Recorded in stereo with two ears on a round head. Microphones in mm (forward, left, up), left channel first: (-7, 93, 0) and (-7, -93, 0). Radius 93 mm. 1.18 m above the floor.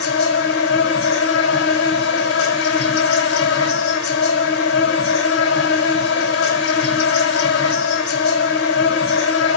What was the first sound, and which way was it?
An insect, 60° left (ahead or behind).